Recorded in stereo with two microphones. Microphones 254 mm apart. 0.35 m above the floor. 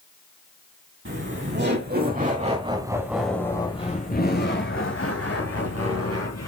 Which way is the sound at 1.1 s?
50° right (ahead or behind).